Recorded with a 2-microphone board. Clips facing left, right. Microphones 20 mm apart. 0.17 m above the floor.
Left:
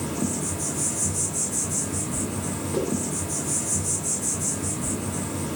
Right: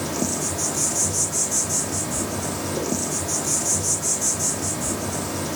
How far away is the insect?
About 0.7 m.